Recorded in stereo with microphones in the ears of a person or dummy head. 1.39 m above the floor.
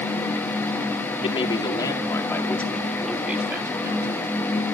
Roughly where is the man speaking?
Left.